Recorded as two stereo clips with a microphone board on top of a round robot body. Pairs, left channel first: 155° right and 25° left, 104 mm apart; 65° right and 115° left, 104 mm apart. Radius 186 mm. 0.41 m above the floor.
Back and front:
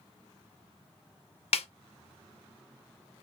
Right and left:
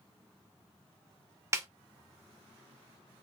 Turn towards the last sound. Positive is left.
turn(degrees=175)